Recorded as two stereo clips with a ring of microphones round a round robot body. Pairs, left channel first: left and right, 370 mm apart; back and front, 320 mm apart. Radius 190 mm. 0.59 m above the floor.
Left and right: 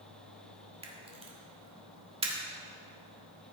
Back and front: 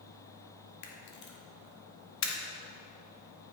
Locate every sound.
0.8 s a camera shutter: 160° right, 1.5 m